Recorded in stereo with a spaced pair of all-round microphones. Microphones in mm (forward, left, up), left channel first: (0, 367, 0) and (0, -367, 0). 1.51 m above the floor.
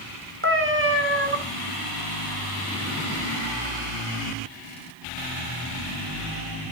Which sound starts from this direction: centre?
A cat meowing, at 0.4 s.